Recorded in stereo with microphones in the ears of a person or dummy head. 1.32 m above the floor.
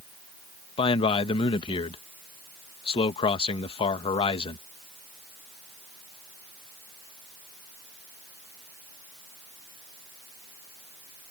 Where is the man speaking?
30° left (ahead or behind).